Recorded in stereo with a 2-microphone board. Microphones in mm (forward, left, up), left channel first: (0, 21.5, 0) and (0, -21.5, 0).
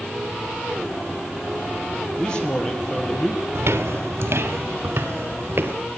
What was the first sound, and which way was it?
A man speaking, 20° left (ahead or behind).